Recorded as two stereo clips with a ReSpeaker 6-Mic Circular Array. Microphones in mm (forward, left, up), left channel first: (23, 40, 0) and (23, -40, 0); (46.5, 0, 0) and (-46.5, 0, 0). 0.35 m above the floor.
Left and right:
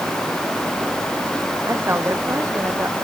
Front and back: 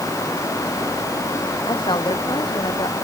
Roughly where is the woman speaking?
Ahead right.